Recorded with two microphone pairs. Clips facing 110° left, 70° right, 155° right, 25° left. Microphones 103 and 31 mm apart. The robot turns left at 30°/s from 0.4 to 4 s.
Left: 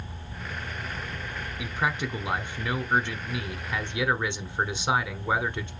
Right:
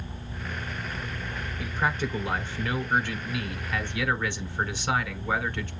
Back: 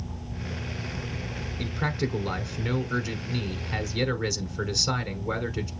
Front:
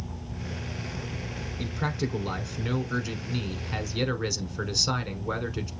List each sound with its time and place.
1.6 s a man speaking: 170° left, 1.2 m; by 5.7 s 100° left, 1.2 m